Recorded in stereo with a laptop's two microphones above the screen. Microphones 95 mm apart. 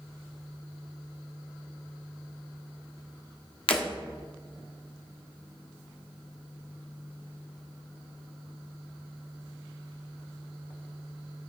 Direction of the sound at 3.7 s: 70° left (ahead or behind).